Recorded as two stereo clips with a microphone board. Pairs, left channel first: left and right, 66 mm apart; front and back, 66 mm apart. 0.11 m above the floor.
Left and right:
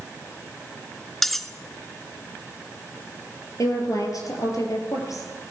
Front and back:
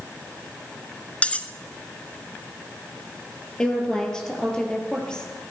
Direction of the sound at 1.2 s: 10° left.